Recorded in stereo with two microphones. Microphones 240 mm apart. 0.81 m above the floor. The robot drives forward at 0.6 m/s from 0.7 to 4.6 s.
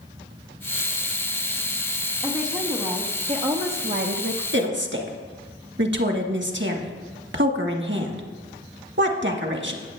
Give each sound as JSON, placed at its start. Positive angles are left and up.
{"t": 2.2, "sound": "a woman speaking", "side_deg": -20, "distance_m": 1.6}
{"t": 4.5, "sound": "a woman speaking", "side_deg": -50, "distance_m": 1.3}